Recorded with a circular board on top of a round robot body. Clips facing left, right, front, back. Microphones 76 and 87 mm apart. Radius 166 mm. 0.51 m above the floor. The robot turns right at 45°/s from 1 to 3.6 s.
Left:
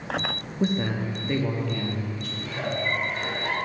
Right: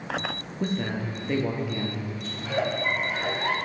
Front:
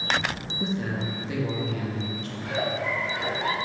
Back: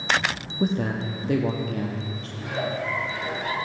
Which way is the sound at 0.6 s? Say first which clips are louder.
Left 3 dB, back 4 dB; 165° left.